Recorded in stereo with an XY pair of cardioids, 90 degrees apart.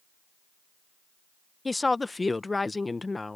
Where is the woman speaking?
20° left.